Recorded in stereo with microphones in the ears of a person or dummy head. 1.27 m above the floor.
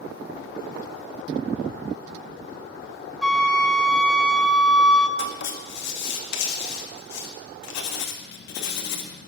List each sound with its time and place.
3.2 s a flute: 5° left (ahead or behind), 0.7 m
5.2 s writing: 65° left (ahead or behind), 1.6 m